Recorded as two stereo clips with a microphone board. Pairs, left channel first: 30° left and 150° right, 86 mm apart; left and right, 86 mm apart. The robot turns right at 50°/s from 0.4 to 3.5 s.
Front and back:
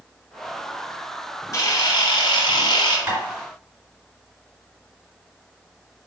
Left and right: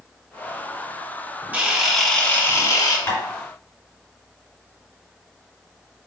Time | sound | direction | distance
1.5 | a camera shutter | 20° right | 0.9 m
3.1 | tapping | 155° left | 2 m